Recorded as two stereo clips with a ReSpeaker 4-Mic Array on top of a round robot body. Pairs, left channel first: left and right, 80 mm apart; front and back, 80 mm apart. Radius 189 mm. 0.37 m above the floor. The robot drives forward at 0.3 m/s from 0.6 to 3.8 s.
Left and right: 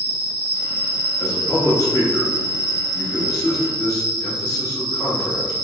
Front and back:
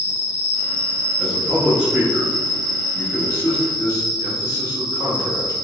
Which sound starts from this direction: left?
A man speaking, at 1.2 s.